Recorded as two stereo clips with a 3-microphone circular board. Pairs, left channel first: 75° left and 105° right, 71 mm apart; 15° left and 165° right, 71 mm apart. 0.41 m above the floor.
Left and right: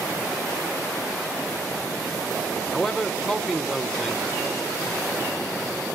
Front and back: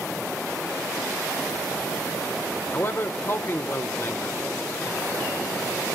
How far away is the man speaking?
About 0.9 m.